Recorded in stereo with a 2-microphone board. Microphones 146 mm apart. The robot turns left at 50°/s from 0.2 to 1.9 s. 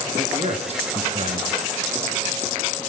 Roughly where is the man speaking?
Ahead right.